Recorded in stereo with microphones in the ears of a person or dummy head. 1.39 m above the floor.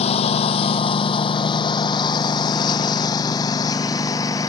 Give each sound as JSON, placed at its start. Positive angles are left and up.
{"t": 0.0, "sound": "a lawn mower", "side_deg": 40}